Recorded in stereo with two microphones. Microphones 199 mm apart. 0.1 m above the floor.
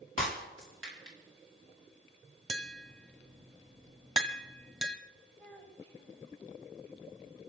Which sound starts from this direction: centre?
A child speaking, at 5.4 s.